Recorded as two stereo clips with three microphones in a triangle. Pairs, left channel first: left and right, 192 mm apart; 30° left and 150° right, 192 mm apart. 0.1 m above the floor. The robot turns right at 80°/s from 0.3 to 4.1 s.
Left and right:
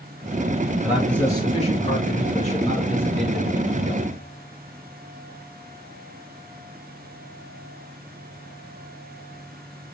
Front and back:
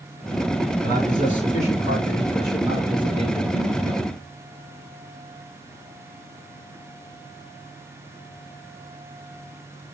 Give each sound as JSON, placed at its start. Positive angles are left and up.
{"t": 0.8, "sound": "a man speaking", "azimuth_deg": -10, "distance_m": 2.0}